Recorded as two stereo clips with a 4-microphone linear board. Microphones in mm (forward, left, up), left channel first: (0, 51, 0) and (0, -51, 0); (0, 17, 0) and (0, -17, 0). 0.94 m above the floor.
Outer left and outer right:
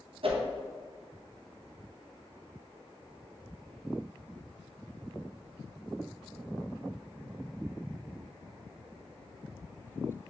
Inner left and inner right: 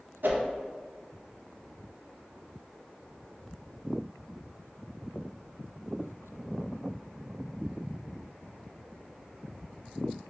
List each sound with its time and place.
0.2 s a whoosh: 65° right (ahead or behind), 0.6 m